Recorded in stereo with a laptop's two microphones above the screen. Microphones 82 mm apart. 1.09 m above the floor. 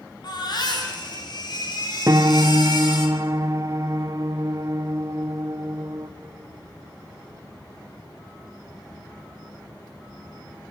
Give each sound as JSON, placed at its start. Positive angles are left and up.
{"t": 0.2, "sound": "a baby crying", "side_deg": 55, "distance_m": 4.5}
{"t": 2.1, "sound": "a piano", "side_deg": -40, "distance_m": 0.7}